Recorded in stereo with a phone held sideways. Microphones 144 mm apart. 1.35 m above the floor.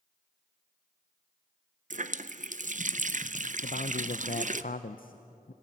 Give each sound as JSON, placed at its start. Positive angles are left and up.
{"t": 1.9, "sound": "a running tap", "side_deg": -60, "distance_m": 0.5}
{"t": 3.6, "sound": "a man speaking", "side_deg": 70, "distance_m": 0.6}